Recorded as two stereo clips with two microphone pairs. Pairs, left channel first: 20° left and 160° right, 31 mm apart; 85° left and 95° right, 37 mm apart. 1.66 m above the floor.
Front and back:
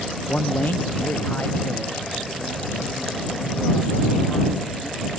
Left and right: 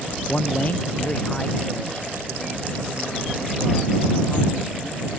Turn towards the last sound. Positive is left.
turn(degrees=20)